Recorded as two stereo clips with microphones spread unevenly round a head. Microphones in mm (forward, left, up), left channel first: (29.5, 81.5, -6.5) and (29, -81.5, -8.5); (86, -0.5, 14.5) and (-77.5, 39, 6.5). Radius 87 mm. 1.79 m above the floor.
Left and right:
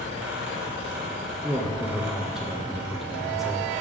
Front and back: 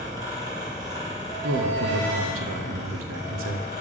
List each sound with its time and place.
0.0 s a fan: 120° right, 3 m
1.4 s a man speaking: straight behind, 1.1 m